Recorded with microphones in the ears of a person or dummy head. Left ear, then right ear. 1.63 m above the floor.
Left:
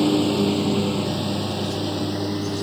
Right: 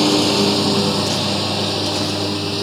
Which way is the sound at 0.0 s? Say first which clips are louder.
Right 5 dB; 30° right (ahead or behind).